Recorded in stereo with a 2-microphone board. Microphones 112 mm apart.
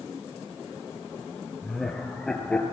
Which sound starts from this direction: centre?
Laughter, at 1.6 s.